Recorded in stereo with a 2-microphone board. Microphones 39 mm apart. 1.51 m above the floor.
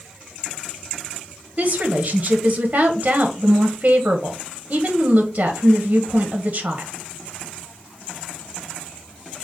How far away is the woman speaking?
About 0.7 m.